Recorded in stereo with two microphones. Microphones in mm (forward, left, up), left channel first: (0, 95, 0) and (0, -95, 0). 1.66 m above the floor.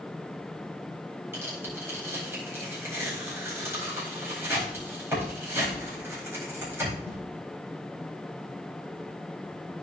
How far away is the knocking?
I don't hear knocking.